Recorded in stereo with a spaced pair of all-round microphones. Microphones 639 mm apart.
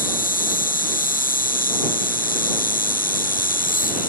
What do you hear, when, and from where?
0.0 s an insect: 15° left (ahead or behind)